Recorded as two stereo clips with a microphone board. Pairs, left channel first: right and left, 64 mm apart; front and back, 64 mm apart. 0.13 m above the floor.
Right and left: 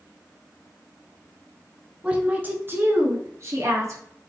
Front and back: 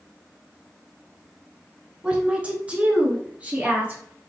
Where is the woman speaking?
135° left, 1.1 m; by 4.0 s 115° left, 2 m.